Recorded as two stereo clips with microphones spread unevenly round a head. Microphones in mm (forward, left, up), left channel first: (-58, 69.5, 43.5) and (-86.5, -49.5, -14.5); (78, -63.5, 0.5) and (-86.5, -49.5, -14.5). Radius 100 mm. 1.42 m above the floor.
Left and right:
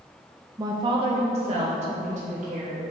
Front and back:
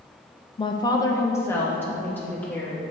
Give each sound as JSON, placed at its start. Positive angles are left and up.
{"t": 0.6, "sound": "a woman speaking", "azimuth_deg": -65, "distance_m": 0.5}